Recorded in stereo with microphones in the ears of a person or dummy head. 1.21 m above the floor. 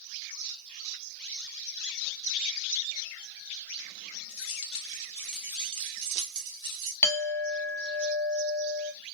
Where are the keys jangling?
35° left (ahead or behind), 1.5 m; by 6.9 s 80° right, 1.4 m.